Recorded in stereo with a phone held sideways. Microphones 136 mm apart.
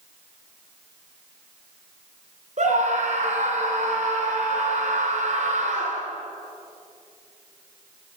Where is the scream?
60° right (ahead or behind), 3.5 m.